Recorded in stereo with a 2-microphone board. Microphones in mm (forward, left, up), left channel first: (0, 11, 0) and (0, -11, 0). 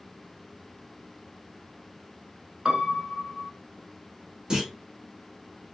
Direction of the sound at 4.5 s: 35° right (ahead or behind).